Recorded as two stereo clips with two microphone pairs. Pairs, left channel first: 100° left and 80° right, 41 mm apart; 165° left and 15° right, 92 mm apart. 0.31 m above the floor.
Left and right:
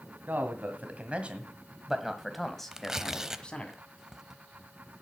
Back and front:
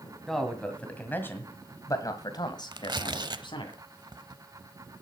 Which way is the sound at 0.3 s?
110° right.